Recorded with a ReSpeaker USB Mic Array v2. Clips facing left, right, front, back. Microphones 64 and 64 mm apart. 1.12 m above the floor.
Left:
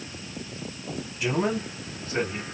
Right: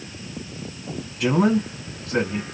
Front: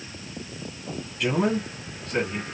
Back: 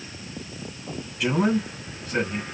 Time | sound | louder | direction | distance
1.2 | a man speaking | right 7 dB, back 1 dB | 95° right | 2.0 m